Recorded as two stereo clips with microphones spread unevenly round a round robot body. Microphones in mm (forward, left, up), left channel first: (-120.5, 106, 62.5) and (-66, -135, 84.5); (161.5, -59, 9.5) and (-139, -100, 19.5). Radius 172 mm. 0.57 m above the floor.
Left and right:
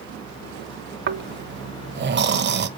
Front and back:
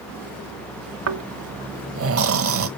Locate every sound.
1.1 s snoring: 125° right, 1.4 m